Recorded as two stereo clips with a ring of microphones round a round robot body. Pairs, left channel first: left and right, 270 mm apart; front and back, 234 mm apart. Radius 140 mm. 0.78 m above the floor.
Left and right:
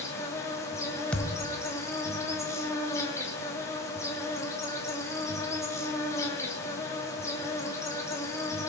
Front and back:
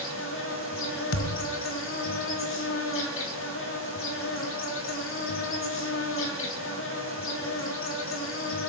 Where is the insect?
10° left, 3 m.